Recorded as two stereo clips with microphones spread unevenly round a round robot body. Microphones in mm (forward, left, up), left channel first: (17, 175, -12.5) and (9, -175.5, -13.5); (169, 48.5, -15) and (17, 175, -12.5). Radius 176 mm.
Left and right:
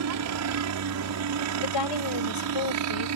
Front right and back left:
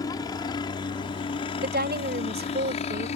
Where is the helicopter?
110° right; by 3.2 s 85° right.